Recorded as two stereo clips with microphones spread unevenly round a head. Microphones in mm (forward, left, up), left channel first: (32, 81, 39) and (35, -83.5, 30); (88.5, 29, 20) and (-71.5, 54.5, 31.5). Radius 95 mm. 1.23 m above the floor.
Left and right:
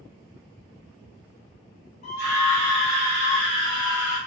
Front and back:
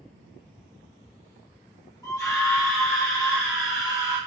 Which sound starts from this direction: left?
A scream, at 2.0 s.